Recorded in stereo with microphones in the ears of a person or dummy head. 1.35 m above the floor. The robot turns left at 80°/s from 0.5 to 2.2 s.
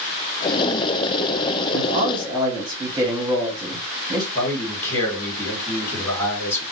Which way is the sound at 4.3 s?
15° left (ahead or behind).